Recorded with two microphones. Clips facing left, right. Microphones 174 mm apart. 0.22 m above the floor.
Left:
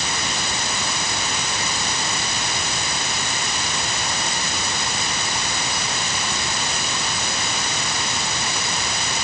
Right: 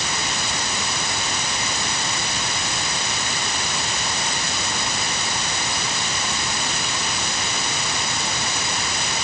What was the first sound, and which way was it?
Only background noise.